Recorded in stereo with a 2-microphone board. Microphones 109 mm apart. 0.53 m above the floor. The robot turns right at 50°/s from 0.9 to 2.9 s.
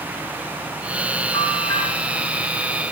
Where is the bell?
55° left (ahead or behind), 5 m; by 1.8 s 30° left (ahead or behind), 5 m.